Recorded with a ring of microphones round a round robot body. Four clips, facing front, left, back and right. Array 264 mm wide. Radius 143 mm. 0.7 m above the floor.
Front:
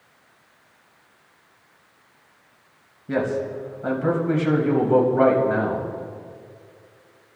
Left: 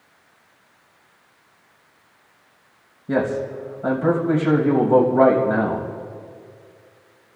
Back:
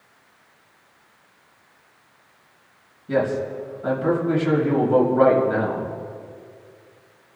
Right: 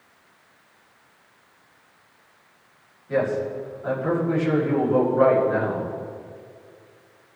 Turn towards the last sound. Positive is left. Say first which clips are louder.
# left 2 dB, back 2 dB
turn(degrees=80)